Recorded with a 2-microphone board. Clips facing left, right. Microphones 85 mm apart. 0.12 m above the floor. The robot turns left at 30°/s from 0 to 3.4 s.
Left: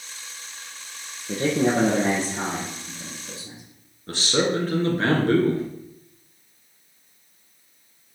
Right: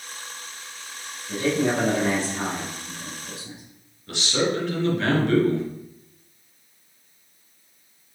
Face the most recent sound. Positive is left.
turn(degrees=40)  # may be behind; listen again after turning